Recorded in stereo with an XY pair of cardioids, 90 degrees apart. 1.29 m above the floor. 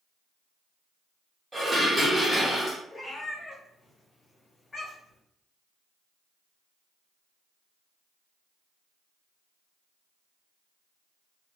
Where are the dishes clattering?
25° right, 1.2 m.